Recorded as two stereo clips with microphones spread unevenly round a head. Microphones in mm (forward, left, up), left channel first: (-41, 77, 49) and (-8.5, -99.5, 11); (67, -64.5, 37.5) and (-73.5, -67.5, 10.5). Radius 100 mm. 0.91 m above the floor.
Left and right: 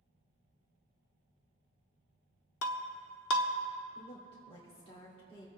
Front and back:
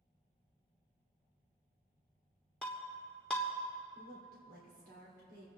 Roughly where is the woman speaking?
Behind.